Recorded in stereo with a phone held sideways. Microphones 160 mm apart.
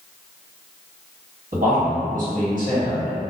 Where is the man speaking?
55° right (ahead or behind), 1.3 m.